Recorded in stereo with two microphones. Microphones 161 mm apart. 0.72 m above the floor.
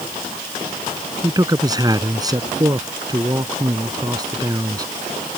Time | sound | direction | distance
1.2 | a man speaking | 25° right (ahead or behind) | ?